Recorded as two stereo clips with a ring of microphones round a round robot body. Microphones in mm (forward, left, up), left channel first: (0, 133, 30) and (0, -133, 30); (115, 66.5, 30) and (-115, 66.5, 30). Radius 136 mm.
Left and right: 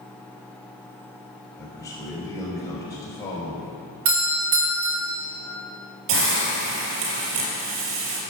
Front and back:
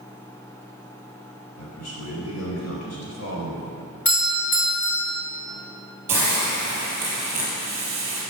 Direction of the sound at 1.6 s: 10° left.